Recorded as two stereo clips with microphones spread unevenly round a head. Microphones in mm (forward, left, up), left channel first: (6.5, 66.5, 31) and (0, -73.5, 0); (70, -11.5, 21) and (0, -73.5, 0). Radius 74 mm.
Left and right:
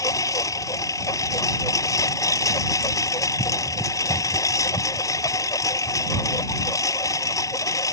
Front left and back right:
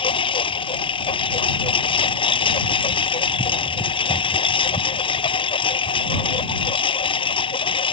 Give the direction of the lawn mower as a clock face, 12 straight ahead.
11 o'clock.